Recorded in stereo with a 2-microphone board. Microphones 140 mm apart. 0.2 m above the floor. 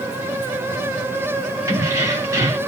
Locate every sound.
1.7 s keys jangling: 20° right (ahead or behind), 1.0 m